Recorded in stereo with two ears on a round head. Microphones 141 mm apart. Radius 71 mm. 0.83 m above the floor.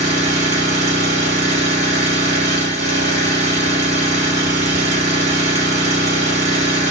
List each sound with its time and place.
0.0 s an engine running: 45° right (ahead or behind), 1.1 m